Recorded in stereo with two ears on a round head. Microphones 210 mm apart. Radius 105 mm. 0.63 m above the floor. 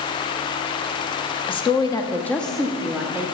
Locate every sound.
1.5 s a woman speaking: 20° left (ahead or behind), 0.8 m; by 3.2 s 10° right (ahead or behind), 1.0 m